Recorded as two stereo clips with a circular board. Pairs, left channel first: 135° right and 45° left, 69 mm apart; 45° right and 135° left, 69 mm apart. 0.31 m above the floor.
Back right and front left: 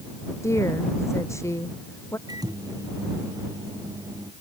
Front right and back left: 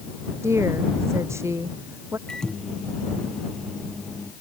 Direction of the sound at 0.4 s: Straight behind.